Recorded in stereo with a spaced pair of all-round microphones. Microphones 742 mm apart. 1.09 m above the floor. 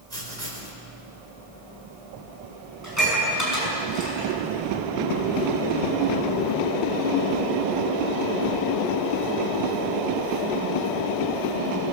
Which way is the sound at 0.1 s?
55° right (ahead or behind).